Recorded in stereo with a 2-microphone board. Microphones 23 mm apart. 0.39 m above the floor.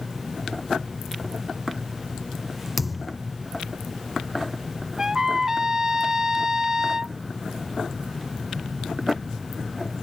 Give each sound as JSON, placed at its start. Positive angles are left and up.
{"t": 2.8, "sound": "a thud", "side_deg": -5}
{"t": 5.0, "sound": "a trumpet", "side_deg": -25}